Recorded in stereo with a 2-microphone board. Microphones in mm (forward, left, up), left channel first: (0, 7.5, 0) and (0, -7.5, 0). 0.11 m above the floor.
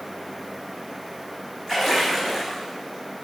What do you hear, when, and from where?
1.7 s a splash: 15° right (ahead or behind), 3 m